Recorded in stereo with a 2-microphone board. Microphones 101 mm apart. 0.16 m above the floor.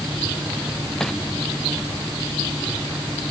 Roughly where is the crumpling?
Centre.